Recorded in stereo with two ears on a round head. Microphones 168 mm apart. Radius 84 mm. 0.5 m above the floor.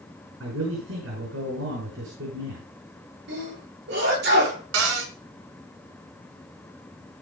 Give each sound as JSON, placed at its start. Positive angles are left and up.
{"t": 0.4, "sound": "a man speaking", "side_deg": -70, "distance_m": 5.5}
{"t": 3.3, "sound": "a sneeze", "side_deg": -60, "distance_m": 9.0}
{"t": 4.7, "sound": "a cupboard door", "side_deg": -85, "distance_m": 2.5}